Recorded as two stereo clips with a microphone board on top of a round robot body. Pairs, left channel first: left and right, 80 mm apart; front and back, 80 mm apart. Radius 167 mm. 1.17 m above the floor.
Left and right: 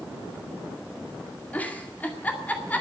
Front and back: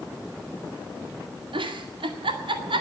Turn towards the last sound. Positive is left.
turn(degrees=160)